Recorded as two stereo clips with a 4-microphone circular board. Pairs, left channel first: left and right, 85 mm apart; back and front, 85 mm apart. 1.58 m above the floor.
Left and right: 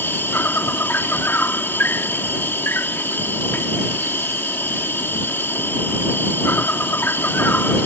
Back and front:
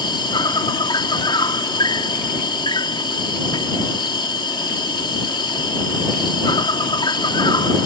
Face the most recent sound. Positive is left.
turn(degrees=155)